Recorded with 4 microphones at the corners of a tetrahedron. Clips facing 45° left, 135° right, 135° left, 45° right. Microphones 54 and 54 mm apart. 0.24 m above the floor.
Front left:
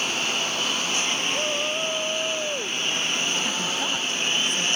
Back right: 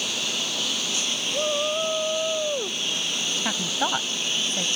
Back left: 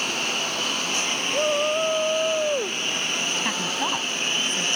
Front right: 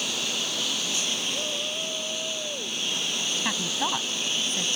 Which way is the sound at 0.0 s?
95° left.